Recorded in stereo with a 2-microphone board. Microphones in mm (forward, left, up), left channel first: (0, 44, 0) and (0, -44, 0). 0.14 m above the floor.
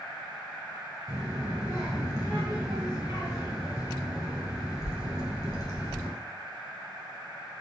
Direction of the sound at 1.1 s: 45° right (ahead or behind).